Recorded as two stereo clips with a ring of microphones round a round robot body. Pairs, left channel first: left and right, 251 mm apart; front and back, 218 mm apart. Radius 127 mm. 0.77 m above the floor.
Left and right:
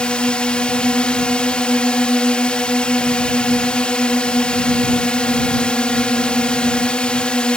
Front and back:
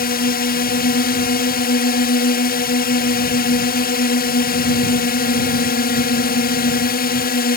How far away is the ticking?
No ticking in this recording.